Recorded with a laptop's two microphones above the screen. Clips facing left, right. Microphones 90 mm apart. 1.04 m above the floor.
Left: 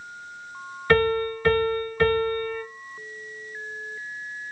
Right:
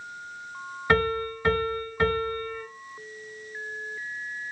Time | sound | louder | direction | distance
0.9 | a piano | left 4 dB | 15° right (ahead or behind) | 2 m